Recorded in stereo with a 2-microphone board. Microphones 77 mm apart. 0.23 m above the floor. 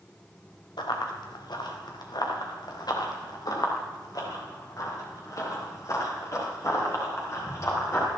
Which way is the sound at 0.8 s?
80° left.